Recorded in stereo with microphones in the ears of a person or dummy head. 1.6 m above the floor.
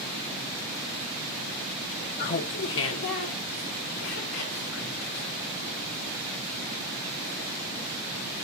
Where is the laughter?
35° left (ahead or behind), 0.6 m; by 5.8 s 80° left, 4 m.